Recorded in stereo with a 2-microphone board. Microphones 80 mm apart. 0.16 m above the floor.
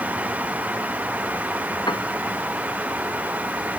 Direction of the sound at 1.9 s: 60° left (ahead or behind).